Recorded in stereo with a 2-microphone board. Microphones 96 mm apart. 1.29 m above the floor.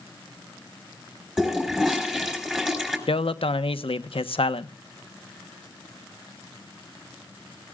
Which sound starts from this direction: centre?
A toilet flushing, at 1.4 s.